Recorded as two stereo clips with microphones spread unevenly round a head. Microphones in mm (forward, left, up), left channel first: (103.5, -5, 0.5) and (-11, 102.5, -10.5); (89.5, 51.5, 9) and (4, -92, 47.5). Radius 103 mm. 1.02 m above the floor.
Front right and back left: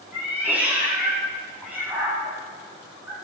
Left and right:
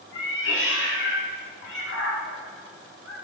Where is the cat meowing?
55° left, 5 m.